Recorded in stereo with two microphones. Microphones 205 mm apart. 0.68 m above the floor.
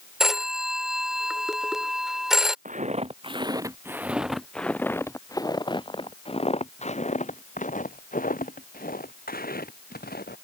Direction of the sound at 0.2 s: Centre (ahead or behind).